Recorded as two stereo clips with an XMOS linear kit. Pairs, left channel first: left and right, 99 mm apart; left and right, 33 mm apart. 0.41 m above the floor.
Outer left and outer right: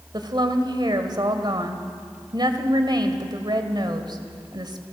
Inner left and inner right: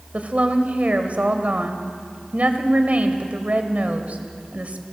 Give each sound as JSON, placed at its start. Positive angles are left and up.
{"t": 0.1, "sound": "a woman speaking", "side_deg": -50, "distance_m": 1.8}